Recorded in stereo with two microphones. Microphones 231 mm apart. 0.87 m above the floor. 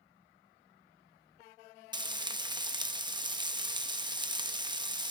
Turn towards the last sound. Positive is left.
turn(degrees=-20)  # may be behind; listen again after turning